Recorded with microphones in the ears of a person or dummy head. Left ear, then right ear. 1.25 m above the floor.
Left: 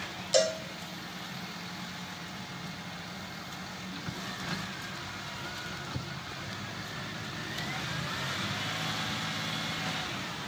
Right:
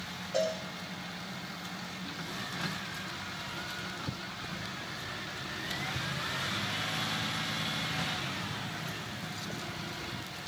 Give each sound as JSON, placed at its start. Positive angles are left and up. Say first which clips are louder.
{"t": 0.3, "sound": "a cowbell", "louder": "left 5 dB", "side_deg": 60, "distance_m": 1.7}